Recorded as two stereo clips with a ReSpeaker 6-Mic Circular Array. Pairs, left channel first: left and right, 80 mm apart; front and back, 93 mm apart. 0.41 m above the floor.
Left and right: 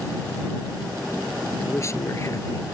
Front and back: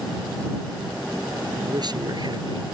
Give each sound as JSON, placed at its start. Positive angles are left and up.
{"t": 1.6, "sound": "a man speaking", "azimuth_deg": 145}